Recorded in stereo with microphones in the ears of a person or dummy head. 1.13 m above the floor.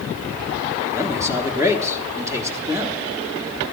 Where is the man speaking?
15° right (ahead or behind), 1.2 m.